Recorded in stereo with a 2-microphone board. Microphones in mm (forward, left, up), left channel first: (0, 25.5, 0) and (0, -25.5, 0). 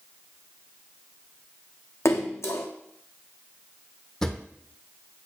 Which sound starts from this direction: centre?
A drawer, at 4.2 s.